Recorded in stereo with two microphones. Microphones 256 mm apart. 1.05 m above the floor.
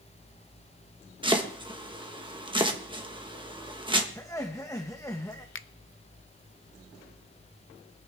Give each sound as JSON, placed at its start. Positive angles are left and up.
{"t": 1.2, "sound": "chopping", "side_deg": -20, "distance_m": 1.4}
{"t": 4.2, "sound": "laughter", "side_deg": 10, "distance_m": 1.0}
{"t": 5.5, "sound": "a finger snap", "side_deg": 55, "distance_m": 0.5}